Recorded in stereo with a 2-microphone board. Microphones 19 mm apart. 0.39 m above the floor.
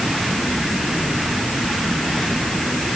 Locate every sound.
Only background noise.